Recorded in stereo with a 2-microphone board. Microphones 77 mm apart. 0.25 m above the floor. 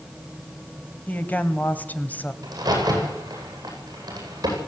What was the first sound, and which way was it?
A woman speaking, 20° left (ahead or behind).